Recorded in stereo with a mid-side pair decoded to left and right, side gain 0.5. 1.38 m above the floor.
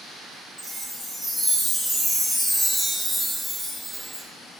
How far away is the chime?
About 0.8 m.